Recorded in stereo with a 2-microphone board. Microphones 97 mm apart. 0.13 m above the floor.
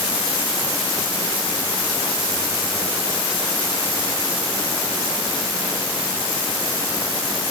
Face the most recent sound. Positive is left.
No sound to turn to.